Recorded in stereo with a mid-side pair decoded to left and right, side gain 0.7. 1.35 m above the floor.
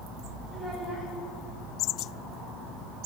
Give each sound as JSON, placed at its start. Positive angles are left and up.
{"t": 0.5, "sound": "a child speaking", "azimuth_deg": -15, "distance_m": 4.5}